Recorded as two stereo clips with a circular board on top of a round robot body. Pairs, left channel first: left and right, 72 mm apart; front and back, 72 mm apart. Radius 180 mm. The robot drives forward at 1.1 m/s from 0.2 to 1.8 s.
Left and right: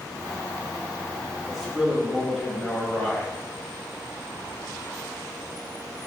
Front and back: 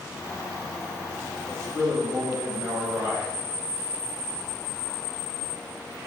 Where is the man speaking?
175° left, 1.5 m.